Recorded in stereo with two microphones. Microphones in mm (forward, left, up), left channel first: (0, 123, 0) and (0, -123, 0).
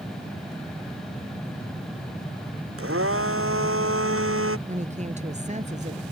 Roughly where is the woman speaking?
Right.